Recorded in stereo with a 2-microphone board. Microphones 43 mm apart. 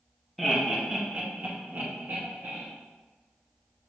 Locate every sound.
0.4 s laughter: centre (ahead or behind), 0.9 m; by 2.7 s 60° right (ahead or behind), 1.3 m